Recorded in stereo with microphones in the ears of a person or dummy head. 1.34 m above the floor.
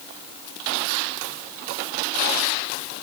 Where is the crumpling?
No crumpling in this recording.